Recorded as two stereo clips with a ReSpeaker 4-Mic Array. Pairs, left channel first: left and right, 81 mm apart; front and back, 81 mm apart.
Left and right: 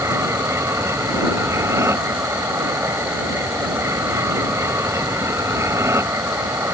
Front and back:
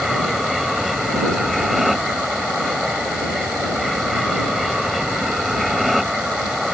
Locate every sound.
0.0 s an aircraft: 90° right